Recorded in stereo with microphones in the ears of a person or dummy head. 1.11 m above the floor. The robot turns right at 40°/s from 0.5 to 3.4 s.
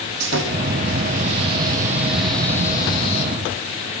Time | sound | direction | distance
0.2 | sawing | 70° right | 9.5 m